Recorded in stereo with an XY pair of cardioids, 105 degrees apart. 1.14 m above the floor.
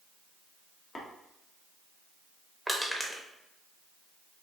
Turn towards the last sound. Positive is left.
turn(degrees=0)